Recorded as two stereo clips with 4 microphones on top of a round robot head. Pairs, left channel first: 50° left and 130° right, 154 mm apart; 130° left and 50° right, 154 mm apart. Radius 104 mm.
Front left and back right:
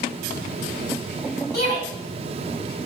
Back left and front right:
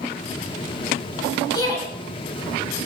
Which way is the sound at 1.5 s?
65° left.